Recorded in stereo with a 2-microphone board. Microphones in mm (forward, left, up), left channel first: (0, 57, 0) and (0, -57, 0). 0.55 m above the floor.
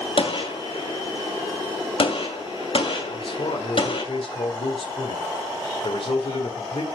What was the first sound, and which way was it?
A gunshot, 55° left (ahead or behind).